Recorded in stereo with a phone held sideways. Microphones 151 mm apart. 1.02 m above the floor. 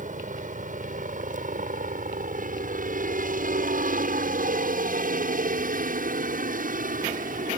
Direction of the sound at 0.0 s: 60° right (ahead or behind).